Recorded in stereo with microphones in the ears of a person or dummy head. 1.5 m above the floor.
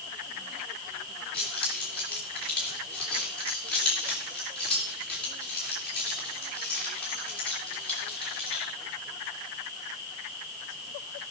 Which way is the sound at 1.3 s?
5° left (ahead or behind).